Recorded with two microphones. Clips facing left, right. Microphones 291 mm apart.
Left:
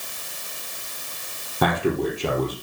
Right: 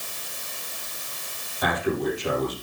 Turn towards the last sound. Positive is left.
turn(degrees=70)  # may be behind; listen again after turning